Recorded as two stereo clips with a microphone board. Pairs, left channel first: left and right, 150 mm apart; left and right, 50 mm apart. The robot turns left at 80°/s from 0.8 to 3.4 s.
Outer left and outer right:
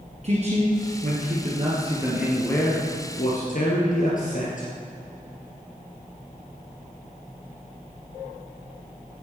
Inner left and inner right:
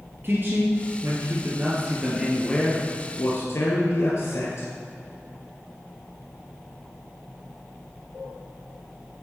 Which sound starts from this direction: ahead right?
A man speaking, at 0.2 s.